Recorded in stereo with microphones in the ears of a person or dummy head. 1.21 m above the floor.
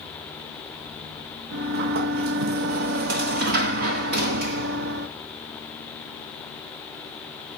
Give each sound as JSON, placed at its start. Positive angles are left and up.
{"t": 1.5, "sound": "a sliding door", "side_deg": -55, "distance_m": 0.7}